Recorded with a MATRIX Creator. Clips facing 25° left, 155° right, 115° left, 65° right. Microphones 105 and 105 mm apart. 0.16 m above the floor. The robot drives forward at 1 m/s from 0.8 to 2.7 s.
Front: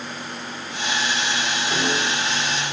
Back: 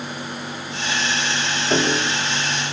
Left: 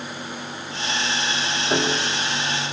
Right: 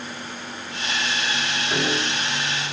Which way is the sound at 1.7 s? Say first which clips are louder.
Back 5 dB, left 2 dB; 160° left.